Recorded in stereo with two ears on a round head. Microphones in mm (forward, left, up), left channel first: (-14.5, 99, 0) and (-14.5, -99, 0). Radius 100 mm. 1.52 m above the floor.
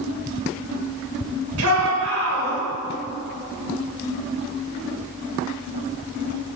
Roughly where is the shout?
Right.